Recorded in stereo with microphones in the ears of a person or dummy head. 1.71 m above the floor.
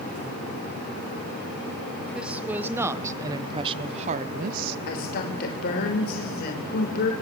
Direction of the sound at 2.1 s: 5° right (ahead or behind).